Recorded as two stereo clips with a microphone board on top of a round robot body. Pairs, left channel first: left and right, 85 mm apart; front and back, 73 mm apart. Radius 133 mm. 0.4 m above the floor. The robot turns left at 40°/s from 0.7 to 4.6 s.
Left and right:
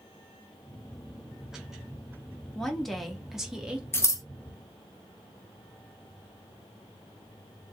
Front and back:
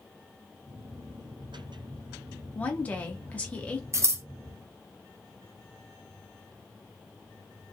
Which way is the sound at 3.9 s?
145° left.